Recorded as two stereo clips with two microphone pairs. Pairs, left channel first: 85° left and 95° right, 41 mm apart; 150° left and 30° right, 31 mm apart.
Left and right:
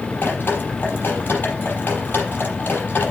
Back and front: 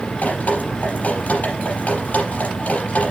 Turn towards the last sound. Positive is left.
turn(degrees=120)